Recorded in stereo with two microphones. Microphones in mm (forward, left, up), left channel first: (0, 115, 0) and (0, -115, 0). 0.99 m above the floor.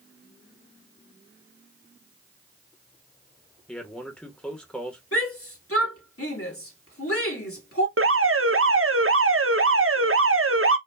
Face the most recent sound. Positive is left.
turn(degrees=-70)  # may be behind; listen again after turning